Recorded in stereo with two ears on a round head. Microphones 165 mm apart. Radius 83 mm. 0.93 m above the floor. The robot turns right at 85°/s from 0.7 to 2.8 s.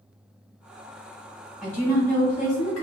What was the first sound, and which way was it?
A woman speaking, 5° right.